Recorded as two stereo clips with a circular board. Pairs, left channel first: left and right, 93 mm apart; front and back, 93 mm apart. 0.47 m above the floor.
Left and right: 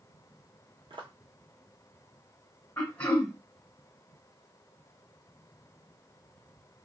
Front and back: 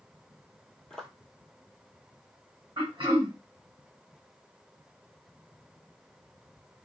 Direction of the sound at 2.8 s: 160° left.